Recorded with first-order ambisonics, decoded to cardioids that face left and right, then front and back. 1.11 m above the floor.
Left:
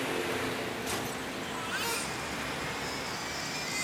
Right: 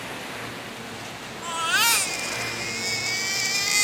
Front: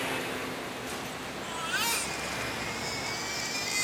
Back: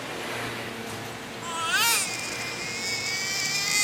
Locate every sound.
1.4 s a baby crying: 120° right, 0.9 m